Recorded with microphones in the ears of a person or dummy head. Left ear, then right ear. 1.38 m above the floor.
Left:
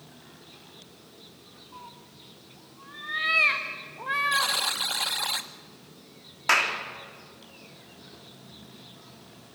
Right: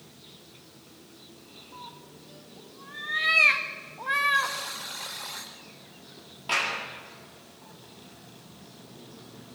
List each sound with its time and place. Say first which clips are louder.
1.7 s a cat meowing: right 1 dB; centre (ahead or behind), 0.9 m
4.3 s a buzzer: left 2 dB; 40° left (ahead or behind), 1.0 m
6.5 s a clap: left 4 dB; 60° left (ahead or behind), 2.5 m